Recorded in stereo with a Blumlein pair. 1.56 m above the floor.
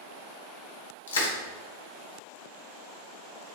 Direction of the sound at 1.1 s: 65° left.